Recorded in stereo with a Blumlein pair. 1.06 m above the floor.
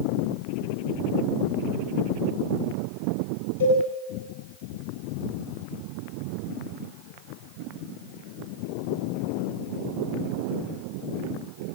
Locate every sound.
3.6 s a cowbell: 60° left, 9.5 m